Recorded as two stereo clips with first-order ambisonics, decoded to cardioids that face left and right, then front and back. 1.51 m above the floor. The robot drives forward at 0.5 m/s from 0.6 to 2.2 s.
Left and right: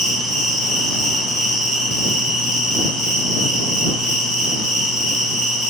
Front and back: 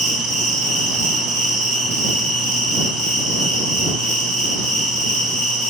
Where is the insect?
160° left, 1.1 m; by 5.7 s 170° left, 1.8 m.